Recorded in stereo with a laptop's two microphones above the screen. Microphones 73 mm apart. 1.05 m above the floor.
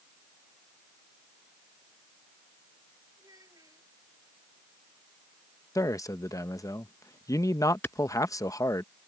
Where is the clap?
25° left (ahead or behind).